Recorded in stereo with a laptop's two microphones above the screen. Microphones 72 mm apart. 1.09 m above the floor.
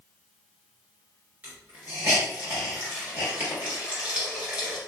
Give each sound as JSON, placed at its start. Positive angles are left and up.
{"t": 1.4, "sound": "a hiss", "side_deg": -25, "distance_m": 2.0}